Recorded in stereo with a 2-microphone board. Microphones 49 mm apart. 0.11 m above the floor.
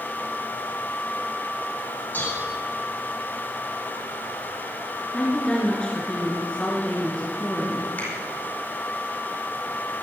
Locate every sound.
2.1 s dishes clattering: 35° left (ahead or behind), 3.5 m
5.1 s a woman speaking: 20° left (ahead or behind), 2.0 m
8.0 s a finger snap: 35° left (ahead or behind), 4 m